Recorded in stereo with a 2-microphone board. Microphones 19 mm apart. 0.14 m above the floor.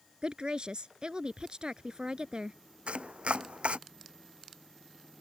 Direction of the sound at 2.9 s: 75° right (ahead or behind).